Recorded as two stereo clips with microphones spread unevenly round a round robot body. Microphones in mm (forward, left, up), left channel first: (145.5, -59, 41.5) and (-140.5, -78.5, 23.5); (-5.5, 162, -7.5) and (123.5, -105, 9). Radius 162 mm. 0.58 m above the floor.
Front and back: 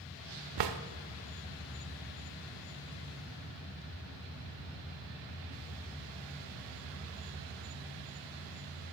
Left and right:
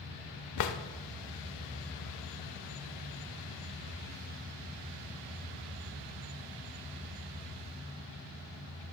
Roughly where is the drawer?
Behind left.